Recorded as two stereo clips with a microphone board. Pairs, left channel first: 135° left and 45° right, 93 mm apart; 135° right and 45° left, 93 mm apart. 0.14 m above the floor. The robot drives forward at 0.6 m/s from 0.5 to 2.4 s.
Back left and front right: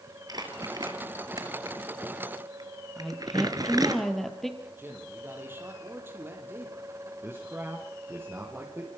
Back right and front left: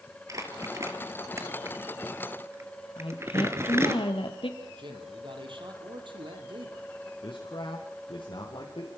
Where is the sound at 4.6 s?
20° left, 5 m.